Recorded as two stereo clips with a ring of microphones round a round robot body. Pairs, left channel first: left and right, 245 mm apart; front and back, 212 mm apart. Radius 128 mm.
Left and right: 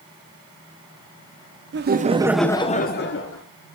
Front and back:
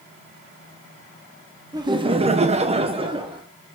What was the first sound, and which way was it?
Laughter, 115° right.